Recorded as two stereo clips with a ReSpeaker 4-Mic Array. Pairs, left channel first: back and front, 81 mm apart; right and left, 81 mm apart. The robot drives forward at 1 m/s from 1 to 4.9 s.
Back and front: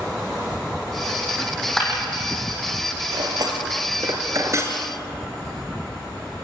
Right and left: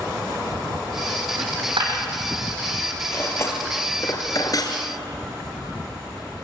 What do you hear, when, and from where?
1.4 s a dropped coin: 90° left, 4.5 m; by 2.0 s 100° left, 4.5 m
3.1 s cutlery clinking: 30° right, 3.5 m; by 4.8 s 55° right, 2 m